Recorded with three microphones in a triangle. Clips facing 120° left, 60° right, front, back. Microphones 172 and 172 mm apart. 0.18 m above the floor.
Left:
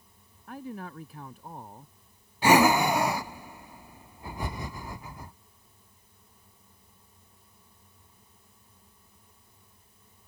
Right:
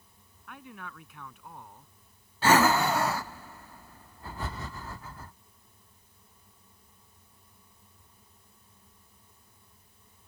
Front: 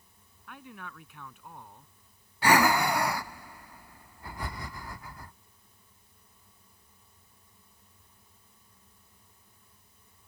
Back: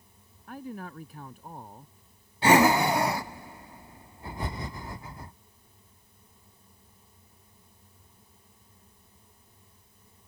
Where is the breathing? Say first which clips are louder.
Left 2 dB, back 4 dB; 170° left.